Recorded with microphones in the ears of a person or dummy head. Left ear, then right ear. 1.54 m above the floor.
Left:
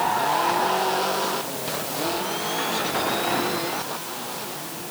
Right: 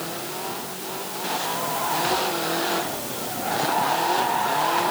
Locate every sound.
Only background noise.